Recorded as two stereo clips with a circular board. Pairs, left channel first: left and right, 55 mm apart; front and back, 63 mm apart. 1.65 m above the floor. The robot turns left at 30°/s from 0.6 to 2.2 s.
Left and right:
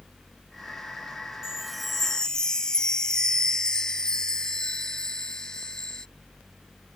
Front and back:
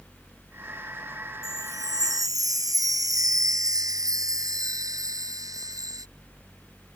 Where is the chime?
170° right; by 6.1 s 170° left.